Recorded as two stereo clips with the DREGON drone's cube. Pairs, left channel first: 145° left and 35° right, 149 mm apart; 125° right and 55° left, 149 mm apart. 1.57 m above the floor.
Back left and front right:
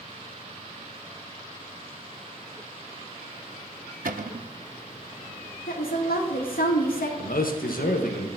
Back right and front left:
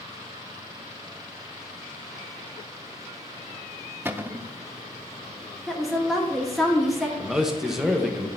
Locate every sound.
4.0 s a cupboard door: 20° right, 0.6 m
5.7 s a woman speaking: 145° left, 1.8 m
7.2 s a man speaking: 145° left, 1.2 m